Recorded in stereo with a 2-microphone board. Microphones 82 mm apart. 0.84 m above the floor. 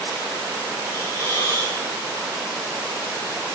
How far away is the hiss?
About 9 m.